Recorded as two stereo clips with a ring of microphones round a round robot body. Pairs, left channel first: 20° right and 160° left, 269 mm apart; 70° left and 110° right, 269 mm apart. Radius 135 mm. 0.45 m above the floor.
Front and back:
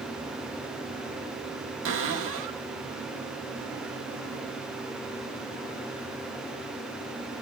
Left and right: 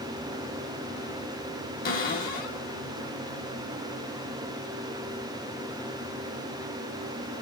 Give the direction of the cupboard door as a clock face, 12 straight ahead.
8 o'clock.